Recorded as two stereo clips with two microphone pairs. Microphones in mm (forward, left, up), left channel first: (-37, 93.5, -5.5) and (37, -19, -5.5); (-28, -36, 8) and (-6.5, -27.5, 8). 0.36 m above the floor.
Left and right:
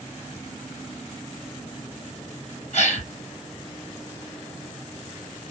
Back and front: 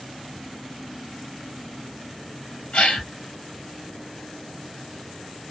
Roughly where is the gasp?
Behind left.